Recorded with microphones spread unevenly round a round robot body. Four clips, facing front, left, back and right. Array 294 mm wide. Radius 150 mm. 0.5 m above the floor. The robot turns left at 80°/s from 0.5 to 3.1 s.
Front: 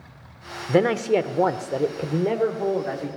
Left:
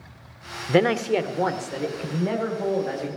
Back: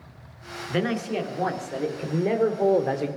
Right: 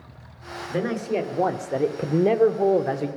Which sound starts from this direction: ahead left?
A man speaking, at 0.7 s.